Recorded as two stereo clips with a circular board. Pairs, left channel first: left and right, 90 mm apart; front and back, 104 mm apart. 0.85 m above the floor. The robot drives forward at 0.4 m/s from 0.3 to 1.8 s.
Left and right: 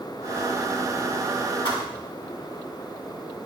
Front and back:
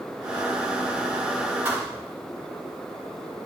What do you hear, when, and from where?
1.6 s a thud: 115° left, 3 m